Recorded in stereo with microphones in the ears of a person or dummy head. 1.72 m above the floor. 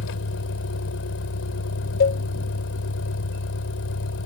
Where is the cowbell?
45° left (ahead or behind).